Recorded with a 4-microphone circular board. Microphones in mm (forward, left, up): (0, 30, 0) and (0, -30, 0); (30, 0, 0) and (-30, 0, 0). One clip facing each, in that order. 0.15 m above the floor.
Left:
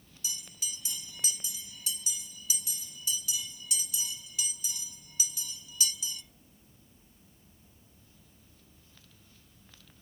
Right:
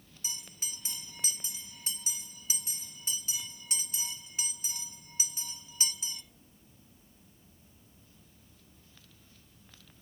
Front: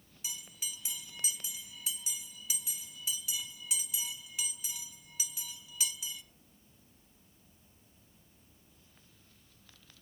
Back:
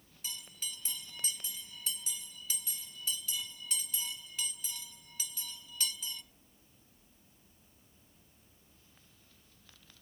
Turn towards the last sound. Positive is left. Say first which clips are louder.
# left 2 dB, even
turn(degrees=-75)